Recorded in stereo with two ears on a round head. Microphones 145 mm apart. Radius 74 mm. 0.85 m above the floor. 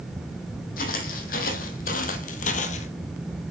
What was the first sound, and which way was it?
Footsteps, 55° left (ahead or behind).